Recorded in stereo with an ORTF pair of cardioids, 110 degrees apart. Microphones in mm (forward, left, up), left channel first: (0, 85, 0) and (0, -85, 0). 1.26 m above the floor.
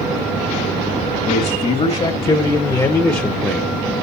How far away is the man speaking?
About 2.0 m.